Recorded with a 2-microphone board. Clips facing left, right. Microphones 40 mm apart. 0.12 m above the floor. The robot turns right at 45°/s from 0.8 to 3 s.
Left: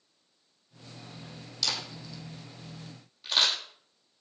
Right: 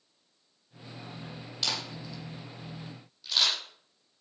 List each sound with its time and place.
1.6 s a camera shutter: 30° right (ahead or behind), 6 m; by 3.5 s 30° left (ahead or behind), 6 m